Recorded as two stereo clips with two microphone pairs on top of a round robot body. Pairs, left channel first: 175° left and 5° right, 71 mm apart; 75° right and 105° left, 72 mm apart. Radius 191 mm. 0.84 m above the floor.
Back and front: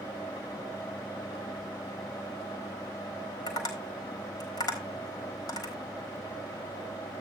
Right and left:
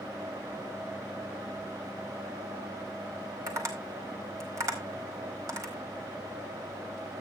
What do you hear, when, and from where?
3.5 s tapping: 150° left, 4 m